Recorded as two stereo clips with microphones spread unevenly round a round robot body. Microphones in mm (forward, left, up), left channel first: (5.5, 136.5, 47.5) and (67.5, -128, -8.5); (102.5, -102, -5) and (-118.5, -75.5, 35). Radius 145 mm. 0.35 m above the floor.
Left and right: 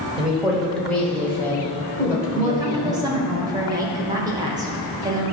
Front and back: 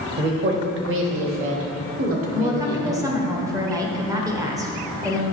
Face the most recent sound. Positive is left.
turn(degrees=-110)